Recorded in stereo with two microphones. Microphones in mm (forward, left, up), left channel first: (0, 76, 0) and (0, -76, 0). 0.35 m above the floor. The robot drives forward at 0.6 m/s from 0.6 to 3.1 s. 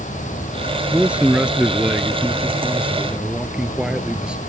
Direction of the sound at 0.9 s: 10° right (ahead or behind).